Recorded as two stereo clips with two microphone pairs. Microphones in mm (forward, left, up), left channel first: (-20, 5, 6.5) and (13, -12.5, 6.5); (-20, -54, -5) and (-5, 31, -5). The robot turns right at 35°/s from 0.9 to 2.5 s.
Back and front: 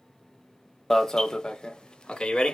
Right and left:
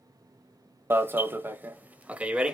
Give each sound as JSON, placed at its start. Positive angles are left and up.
{"t": 0.9, "sound": "an alarm", "azimuth_deg": 95, "distance_m": 0.6}